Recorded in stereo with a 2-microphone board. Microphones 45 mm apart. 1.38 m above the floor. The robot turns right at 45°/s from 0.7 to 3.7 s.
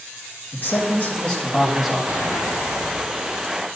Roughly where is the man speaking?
Behind left.